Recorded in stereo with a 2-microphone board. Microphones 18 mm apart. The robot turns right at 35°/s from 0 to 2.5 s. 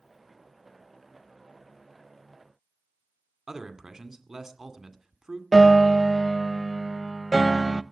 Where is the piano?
15° left (ahead or behind), 0.7 m.